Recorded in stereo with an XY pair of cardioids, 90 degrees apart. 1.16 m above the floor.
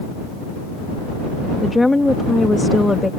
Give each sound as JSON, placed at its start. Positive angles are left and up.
{"t": 1.6, "sound": "a woman speaking", "azimuth_deg": 15}